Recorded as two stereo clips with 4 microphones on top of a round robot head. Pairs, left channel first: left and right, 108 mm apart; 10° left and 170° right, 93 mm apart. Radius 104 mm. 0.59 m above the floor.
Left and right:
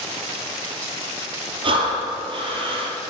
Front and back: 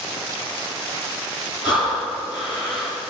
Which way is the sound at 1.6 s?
50° right.